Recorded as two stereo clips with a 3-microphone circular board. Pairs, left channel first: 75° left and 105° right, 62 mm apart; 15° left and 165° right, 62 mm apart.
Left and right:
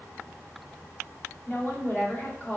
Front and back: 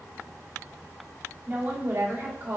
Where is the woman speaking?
135° left, 2 m.